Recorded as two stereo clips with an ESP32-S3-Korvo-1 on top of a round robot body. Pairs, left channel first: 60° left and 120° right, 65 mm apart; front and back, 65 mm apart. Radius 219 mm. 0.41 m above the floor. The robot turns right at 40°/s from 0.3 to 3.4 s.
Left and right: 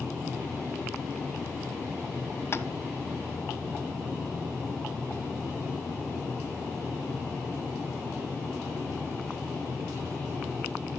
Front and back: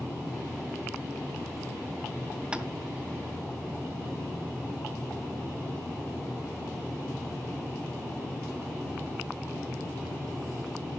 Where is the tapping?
105° left, 1.1 m; by 2.7 s 110° left, 1.1 m.